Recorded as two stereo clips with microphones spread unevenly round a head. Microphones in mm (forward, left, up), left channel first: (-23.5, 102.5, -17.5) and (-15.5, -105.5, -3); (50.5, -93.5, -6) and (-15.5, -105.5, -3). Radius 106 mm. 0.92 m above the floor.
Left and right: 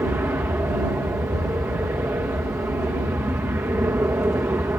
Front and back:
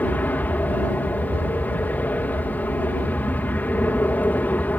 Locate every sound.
0.0 s an aircraft: 15° right